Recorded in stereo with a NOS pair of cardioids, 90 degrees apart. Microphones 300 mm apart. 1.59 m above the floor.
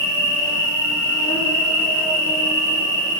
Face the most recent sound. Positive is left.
turn(degrees=10)